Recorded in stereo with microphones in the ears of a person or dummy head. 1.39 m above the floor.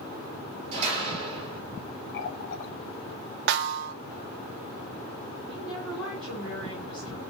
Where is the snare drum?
65° right (ahead or behind), 0.6 m.